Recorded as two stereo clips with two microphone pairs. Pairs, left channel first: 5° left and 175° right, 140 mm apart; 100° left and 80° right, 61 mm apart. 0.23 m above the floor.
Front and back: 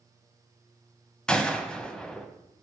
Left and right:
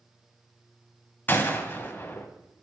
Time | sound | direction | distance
1.3 | a gunshot | 90° left | 1.2 m